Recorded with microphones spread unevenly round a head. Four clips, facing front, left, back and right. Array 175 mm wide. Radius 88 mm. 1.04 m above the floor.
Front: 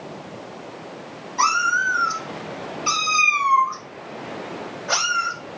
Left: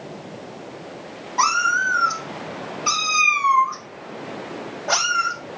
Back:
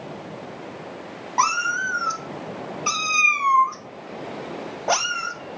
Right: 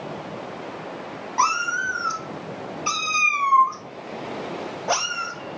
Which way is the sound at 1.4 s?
170° right.